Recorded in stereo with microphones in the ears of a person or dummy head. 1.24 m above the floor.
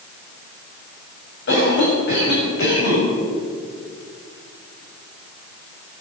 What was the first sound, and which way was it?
A cough, 65° left (ahead or behind).